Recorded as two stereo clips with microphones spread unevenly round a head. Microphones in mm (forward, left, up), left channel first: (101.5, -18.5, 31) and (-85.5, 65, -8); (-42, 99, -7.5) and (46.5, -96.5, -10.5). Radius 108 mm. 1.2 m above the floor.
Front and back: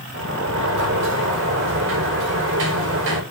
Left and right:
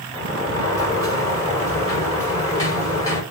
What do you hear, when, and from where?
0.1 s a sliding door: 170° right, 4.5 m